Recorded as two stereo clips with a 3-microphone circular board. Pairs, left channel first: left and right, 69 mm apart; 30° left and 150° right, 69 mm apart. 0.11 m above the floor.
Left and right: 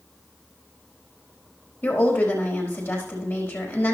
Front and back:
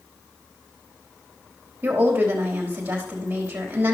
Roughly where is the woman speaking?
Behind left.